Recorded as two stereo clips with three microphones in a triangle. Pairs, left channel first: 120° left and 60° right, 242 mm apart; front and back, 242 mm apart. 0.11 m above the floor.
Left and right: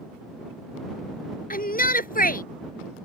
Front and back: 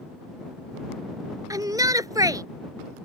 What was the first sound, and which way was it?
A shout, 115° left.